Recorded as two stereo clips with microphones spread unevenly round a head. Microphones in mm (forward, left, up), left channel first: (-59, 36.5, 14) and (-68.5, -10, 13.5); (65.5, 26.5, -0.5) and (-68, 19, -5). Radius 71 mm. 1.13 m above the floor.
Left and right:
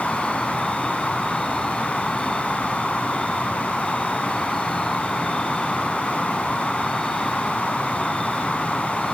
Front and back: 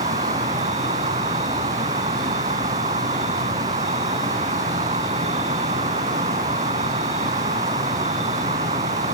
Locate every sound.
0.0 s an insect: 160° left, 1.5 m